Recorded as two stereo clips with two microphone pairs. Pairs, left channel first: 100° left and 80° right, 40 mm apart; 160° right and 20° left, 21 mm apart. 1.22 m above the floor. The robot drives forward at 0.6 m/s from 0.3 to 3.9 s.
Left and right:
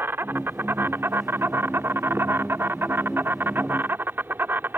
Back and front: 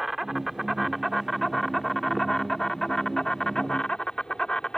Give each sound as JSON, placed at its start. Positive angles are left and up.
{"t": 0.0, "sound": "an insect", "azimuth_deg": -60}